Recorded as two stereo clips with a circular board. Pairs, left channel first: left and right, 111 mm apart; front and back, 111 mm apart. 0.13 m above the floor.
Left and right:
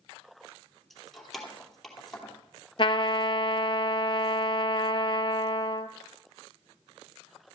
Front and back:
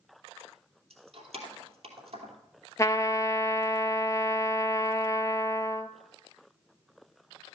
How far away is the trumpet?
About 0.6 m.